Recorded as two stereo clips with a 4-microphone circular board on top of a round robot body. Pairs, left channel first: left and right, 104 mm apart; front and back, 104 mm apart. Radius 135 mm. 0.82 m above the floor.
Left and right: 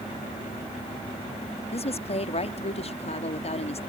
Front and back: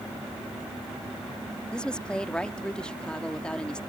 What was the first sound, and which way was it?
A woman speaking, 80° left.